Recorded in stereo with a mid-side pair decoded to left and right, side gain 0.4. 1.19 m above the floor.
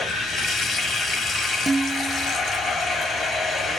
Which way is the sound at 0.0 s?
70° left.